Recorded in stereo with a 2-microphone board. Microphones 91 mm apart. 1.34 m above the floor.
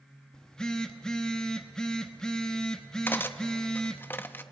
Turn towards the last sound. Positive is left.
turn(degrees=20)  # may be behind; listen again after turning